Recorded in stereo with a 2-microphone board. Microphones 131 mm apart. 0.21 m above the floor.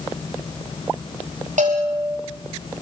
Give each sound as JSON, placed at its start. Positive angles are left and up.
{"t": 1.6, "sound": "a bell", "side_deg": -70, "distance_m": 8.0}